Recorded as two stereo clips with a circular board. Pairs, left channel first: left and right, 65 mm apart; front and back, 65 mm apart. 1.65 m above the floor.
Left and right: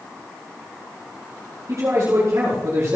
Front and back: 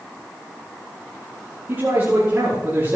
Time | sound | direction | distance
1.7 | a man speaking | 125° right | 4 m